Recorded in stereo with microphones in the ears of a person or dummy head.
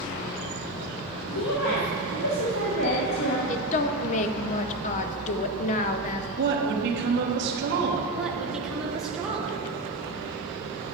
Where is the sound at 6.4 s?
60° right (ahead or behind), 1.1 m.